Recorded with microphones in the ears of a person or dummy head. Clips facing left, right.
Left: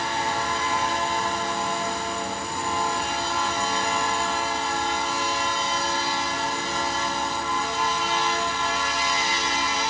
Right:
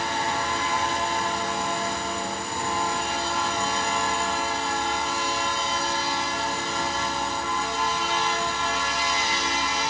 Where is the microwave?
I don't hear a microwave.